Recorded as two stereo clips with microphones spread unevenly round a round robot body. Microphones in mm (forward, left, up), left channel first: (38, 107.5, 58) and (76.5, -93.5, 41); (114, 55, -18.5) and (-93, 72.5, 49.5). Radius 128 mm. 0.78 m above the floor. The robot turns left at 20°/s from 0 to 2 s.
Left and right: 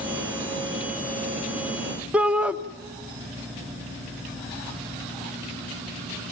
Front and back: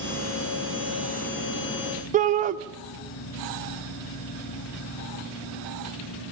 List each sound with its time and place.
2.1 s a shout: 135° right, 0.9 m